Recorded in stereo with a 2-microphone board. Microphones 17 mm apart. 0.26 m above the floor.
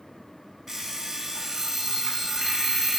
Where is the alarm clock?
20° right (ahead or behind), 1.5 m.